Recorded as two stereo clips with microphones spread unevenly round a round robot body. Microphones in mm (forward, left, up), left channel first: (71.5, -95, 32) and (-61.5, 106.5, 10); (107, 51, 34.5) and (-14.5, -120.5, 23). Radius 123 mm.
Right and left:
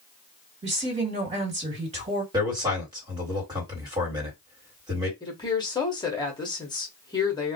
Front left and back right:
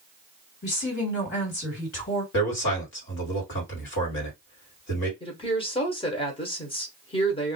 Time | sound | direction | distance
0.6 | a woman speaking | 70° left | 2 m
2.3 | a man speaking | 55° left | 1.8 m
5.2 | a woman speaking | 10° left | 1.1 m